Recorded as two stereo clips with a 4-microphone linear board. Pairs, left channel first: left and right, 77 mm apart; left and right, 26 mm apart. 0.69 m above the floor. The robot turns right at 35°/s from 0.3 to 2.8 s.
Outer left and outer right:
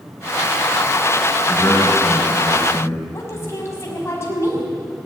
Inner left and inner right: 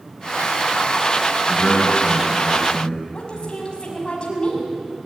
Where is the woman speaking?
35° left (ahead or behind), 6 m.